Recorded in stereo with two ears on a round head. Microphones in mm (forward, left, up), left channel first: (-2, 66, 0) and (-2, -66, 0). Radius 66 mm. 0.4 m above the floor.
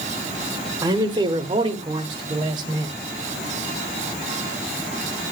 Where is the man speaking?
25° right (ahead or behind), 0.9 m; by 3.0 s 30° right (ahead or behind), 2 m.